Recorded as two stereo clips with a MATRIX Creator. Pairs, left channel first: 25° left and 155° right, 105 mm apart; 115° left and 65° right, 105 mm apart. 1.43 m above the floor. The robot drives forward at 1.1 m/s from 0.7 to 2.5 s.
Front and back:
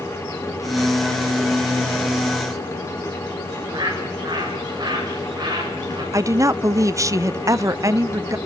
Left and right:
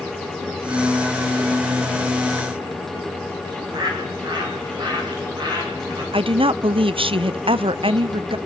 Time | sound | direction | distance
3.5 | a bird | 110° right | 8.5 m
6.1 | a woman speaking | 95° right | 0.7 m